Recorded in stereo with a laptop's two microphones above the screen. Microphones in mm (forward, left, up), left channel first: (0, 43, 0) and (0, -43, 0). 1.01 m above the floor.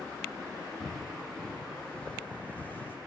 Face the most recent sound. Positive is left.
turn(degrees=25)  # may be behind; listen again after turning